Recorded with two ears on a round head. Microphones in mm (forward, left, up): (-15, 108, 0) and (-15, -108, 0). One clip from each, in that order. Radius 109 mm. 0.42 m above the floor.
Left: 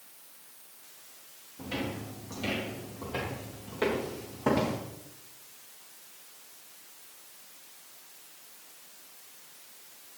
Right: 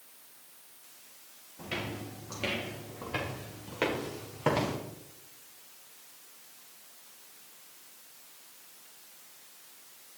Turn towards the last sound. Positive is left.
turn(degrees=-85)